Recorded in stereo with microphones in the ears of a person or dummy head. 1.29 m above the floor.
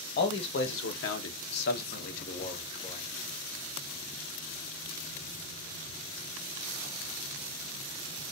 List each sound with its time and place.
0.2 s a man speaking: 50° left (ahead or behind), 1.0 m; by 3.1 s 35° left (ahead or behind), 1.4 m